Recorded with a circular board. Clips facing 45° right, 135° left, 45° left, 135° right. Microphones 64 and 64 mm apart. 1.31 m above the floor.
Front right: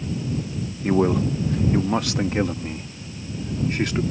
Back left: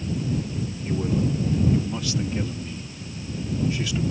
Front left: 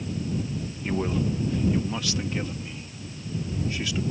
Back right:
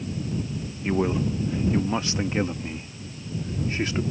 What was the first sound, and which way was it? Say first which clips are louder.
A man speaking: front right 6 dB, back right 3 dB; 60° right.